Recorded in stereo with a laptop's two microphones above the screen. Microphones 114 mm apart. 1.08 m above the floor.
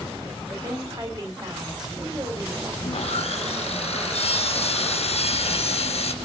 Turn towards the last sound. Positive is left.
turn(degrees=65)  # may be behind; listen again after turning